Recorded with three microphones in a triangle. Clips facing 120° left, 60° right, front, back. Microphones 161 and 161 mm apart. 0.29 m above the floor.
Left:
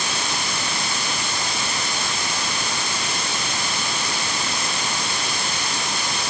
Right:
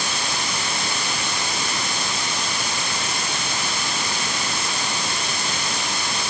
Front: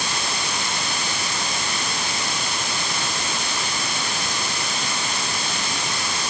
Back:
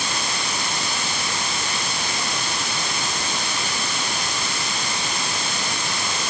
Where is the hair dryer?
No hair dryer in this recording.